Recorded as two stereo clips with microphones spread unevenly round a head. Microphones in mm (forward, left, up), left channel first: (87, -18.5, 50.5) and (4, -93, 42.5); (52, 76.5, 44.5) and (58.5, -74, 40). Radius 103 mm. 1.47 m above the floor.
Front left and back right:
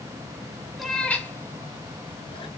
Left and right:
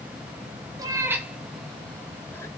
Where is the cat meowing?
40° right, 1.5 m; by 2.5 s 25° left, 2 m.